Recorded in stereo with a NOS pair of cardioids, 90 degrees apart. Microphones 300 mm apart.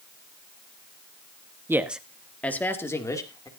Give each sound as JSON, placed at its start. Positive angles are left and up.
{"t": 1.7, "sound": "a man speaking", "azimuth_deg": -10, "distance_m": 1.4}